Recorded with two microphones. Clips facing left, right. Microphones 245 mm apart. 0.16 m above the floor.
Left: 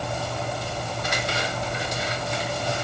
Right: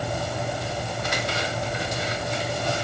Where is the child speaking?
I don't hear a child speaking.